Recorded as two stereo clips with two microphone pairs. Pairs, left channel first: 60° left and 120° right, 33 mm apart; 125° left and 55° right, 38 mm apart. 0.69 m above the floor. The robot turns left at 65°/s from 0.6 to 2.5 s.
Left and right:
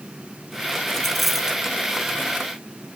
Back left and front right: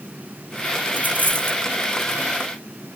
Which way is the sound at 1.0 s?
10° right.